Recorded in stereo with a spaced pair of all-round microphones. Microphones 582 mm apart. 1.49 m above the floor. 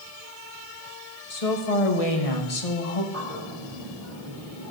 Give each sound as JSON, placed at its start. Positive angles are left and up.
{"t": 1.3, "sound": "a woman speaking", "side_deg": 75, "distance_m": 1.8}
{"t": 3.1, "sound": "a bird", "side_deg": -75, "distance_m": 3.5}